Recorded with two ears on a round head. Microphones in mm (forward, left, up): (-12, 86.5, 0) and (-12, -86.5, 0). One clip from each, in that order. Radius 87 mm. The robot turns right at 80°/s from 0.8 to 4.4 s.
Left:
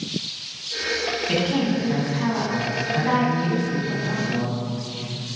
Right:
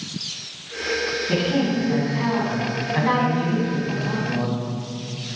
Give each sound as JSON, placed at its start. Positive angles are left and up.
{"t": 1.3, "sound": "a woman speaking", "azimuth_deg": 110, "distance_m": 4.0}